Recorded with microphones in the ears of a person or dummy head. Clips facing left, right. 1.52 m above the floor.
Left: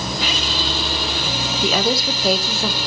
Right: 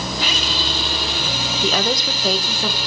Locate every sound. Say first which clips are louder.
1.6 s a woman speaking: left 2 dB; 5° left (ahead or behind), 1.0 m